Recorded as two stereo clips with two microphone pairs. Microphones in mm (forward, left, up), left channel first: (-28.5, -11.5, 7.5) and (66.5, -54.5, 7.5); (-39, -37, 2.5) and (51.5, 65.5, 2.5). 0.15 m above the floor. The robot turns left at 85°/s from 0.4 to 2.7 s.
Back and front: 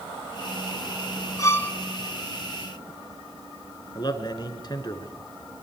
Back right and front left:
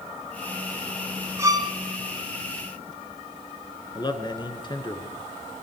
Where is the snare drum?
No snare drum in this recording.